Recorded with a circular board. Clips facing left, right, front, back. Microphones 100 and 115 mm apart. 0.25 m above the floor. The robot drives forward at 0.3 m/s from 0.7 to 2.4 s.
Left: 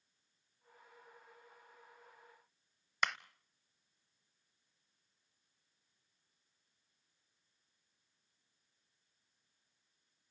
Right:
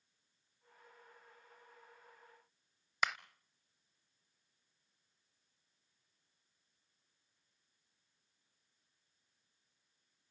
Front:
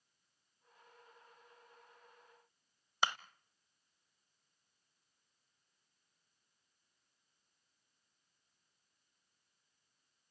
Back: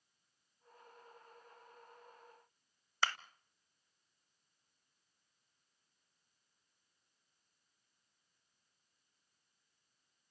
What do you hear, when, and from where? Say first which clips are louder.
3.0 s a clap: even, front 1 dB; 10° right, 0.8 m